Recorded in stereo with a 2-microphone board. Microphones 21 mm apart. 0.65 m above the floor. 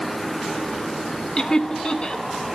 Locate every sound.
1.4 s laughter: 45° left (ahead or behind), 1.0 m